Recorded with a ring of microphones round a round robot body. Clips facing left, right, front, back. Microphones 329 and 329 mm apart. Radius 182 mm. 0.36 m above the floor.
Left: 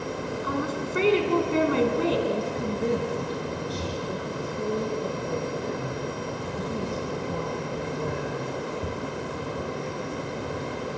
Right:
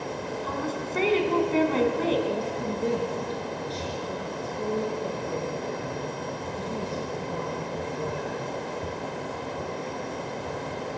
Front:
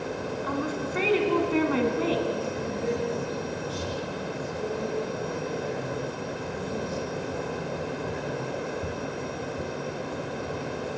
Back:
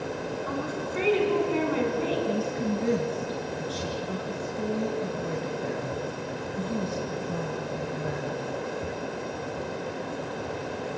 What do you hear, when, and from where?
0.4 s a woman speaking: 15° left, 4.5 m
2.3 s a woman speaking: 165° left, 5 m